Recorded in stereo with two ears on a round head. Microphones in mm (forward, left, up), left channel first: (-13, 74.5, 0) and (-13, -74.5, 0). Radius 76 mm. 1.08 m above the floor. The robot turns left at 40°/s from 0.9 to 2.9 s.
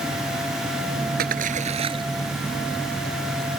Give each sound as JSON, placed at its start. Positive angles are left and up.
{"t": 1.2, "sound": "a splash", "side_deg": -65}